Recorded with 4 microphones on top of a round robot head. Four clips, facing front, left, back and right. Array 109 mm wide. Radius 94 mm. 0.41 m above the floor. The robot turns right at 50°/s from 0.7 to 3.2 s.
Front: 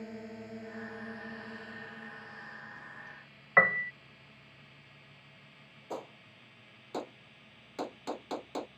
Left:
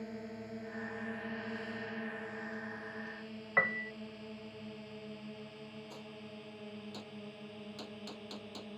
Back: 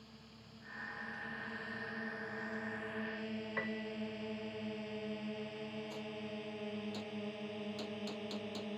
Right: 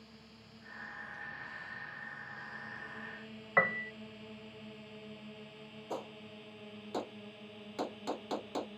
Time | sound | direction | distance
0.0 | a drone | 40° left | ?
3.6 | a piano | 20° right | ?
5.9 | a gunshot | 45° right | ?